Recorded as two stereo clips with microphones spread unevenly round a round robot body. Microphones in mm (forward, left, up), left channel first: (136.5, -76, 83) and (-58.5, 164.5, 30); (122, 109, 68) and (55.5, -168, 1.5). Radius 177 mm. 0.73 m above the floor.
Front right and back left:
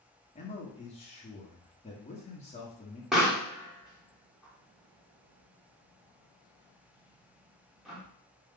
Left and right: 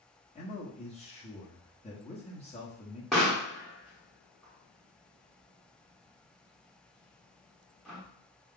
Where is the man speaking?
10° left, 1.0 m.